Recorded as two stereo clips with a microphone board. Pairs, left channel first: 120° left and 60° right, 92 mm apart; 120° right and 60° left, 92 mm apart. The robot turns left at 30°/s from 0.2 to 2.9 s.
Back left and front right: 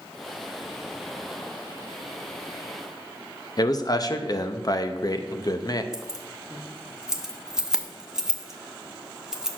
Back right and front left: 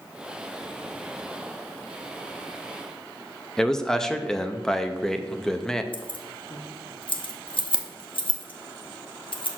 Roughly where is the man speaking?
Behind left.